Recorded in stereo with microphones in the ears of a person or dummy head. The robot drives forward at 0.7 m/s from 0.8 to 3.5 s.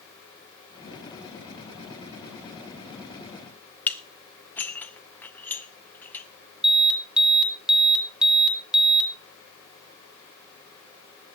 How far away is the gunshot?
I don't hear a gunshot.